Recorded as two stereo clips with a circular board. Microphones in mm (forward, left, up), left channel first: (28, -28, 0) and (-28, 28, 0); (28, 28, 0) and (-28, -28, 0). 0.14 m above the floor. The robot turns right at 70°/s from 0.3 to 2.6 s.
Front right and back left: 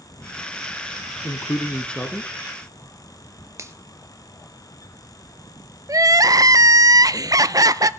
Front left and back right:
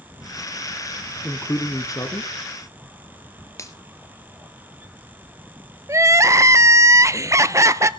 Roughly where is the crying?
Behind.